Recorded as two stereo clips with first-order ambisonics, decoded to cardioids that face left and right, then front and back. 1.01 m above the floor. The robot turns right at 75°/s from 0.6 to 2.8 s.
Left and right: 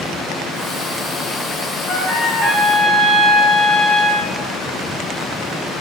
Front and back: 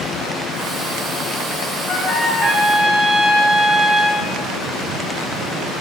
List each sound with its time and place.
1.9 s a trumpet: 40° left, 1.2 m; by 4.3 s 110° left, 1.2 m